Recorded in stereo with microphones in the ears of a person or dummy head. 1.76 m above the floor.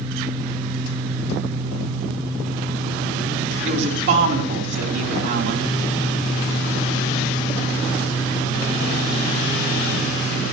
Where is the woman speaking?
65° right (ahead or behind), 3.5 m.